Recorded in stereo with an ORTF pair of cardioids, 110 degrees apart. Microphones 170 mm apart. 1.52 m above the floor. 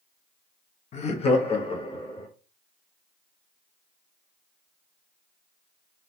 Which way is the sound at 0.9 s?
40° left.